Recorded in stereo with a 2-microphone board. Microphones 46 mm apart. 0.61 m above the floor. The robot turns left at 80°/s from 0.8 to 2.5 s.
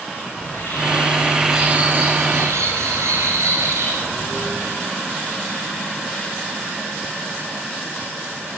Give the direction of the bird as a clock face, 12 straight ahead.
10 o'clock.